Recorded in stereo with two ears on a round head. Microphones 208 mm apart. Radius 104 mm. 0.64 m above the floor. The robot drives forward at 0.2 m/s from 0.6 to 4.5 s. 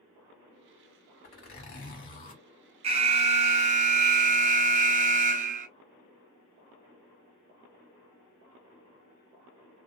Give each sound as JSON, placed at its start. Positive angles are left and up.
{"t": 1.2, "sound": "a zipper", "side_deg": 40, "distance_m": 1.6}
{"t": 2.8, "sound": "an alarm", "side_deg": -25, "distance_m": 0.7}